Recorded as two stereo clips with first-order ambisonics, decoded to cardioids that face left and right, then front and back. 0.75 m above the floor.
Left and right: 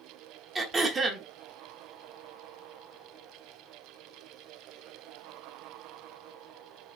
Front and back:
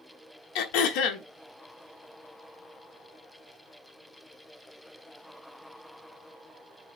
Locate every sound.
0.6 s throat clearing: 15° right, 0.8 m